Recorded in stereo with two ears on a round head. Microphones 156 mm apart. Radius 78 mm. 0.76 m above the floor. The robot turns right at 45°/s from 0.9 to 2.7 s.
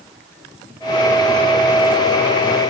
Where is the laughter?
No laughter in this recording.